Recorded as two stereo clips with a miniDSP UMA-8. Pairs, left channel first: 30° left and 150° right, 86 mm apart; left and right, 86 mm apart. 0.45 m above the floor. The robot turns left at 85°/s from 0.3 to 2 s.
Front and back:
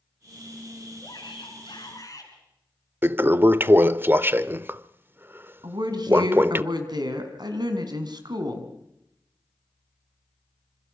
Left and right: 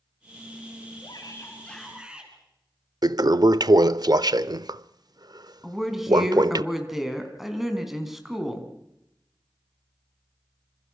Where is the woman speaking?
175° right, 3.5 m.